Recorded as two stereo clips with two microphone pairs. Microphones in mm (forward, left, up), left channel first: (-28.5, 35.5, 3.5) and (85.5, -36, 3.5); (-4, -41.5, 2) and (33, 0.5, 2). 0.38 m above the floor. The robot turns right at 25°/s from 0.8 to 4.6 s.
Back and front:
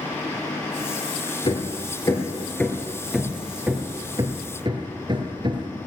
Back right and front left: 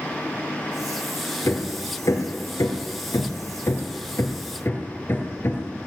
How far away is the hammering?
About 2.5 m.